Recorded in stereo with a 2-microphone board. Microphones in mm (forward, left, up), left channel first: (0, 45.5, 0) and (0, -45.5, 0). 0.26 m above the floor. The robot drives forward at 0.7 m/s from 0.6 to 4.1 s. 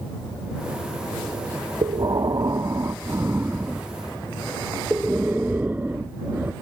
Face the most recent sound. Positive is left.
turn(degrees=-20)  # may be behind; listen again after turning